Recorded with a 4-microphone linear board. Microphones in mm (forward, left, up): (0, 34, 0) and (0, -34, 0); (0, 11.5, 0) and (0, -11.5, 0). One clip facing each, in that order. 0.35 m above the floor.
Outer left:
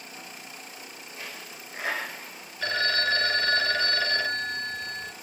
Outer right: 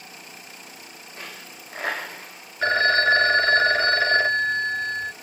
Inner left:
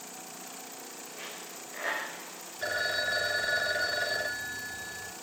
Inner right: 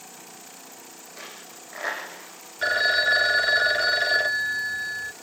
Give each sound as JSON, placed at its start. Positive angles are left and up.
{"t": 1.2, "sound": "a dropped coin", "side_deg": -55, "distance_m": 6.5}
{"t": 2.6, "sound": "a phone ringing", "side_deg": -40, "distance_m": 0.8}